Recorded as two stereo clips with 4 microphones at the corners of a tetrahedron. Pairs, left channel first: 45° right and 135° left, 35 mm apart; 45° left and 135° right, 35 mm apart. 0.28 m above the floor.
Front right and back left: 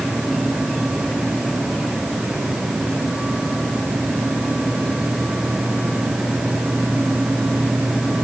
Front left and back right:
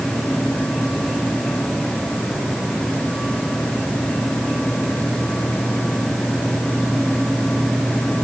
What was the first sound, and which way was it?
Only background noise.